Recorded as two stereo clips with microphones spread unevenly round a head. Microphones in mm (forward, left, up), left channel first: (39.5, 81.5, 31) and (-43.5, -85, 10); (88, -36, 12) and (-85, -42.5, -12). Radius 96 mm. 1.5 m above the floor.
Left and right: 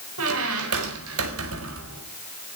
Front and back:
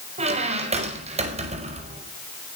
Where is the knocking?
I don't hear knocking.